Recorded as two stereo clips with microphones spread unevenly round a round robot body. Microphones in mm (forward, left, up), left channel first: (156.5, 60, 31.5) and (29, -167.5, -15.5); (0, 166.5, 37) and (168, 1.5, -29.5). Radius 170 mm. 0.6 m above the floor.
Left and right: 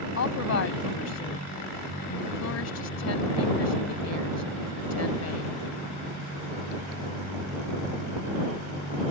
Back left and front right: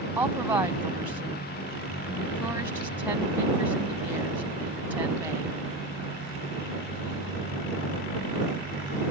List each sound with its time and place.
0.2 s a woman speaking: 35° left